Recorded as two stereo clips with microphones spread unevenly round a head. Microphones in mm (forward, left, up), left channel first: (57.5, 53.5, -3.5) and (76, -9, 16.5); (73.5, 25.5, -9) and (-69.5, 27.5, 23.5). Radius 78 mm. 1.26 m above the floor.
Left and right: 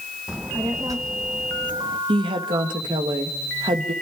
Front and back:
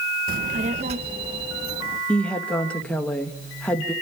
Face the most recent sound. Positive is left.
turn(degrees=-85)